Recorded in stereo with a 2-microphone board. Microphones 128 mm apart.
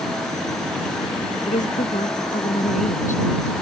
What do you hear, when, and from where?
1.5 s a woman speaking: 65° left (ahead or behind); by 3.5 s 75° left (ahead or behind)